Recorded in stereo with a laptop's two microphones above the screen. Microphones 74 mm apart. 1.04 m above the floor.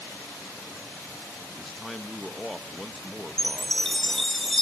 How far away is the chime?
About 0.7 m.